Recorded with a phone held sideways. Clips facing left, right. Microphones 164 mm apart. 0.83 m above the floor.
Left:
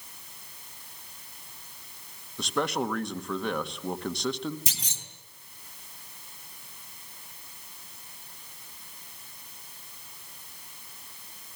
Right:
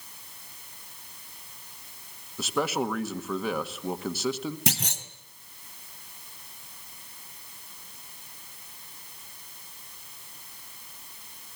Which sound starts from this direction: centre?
A man speaking, at 2.4 s.